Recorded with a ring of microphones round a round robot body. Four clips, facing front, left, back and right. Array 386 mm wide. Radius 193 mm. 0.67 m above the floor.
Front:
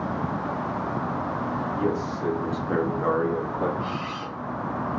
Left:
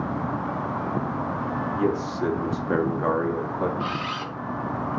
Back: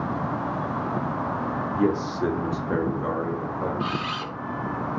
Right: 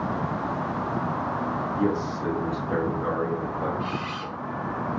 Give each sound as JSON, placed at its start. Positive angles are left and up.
{"t": 1.8, "sound": "a man speaking", "azimuth_deg": 155, "distance_m": 0.9}
{"t": 3.8, "sound": "a camera shutter", "azimuth_deg": 140, "distance_m": 0.6}